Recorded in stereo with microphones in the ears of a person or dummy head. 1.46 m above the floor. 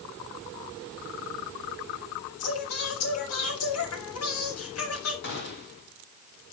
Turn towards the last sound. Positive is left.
turn(degrees=60)  # may be behind; listen again after turning